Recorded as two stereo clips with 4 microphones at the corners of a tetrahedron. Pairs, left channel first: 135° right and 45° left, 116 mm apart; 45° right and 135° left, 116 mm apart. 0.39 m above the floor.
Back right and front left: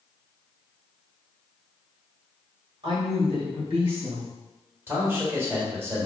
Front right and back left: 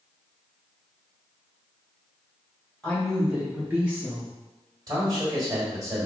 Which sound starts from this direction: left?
A man speaking, at 4.9 s.